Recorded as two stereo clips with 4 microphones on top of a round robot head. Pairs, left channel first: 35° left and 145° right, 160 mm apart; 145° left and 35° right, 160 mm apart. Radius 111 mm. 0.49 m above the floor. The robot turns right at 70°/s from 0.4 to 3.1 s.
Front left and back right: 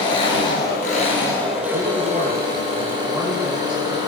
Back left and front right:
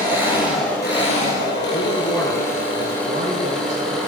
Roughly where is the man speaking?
Behind.